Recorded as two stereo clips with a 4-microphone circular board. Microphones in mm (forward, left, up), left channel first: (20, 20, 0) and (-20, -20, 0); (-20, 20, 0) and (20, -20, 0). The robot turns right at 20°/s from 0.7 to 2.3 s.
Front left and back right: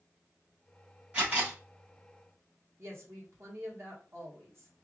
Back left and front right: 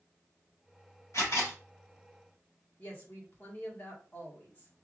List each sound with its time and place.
1.1 s a camera shutter: 160° left, 3.5 m; by 1.6 s 170° left, 3.5 m
2.8 s a woman speaking: 170° right, 1.6 m